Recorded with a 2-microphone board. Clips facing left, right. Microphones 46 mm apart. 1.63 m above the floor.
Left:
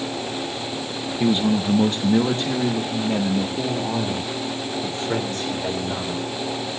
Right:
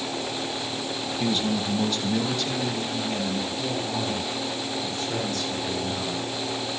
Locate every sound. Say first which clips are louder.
1.2 s a man speaking: left 6 dB; 25° left (ahead or behind), 1.1 m; by 6.2 s 45° left (ahead or behind), 5 m